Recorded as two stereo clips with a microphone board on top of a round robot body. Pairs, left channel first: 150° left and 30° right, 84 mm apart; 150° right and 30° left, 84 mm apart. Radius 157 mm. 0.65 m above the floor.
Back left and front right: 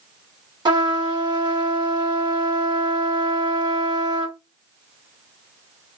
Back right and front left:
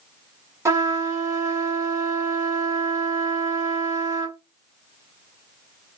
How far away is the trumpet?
About 1.5 m.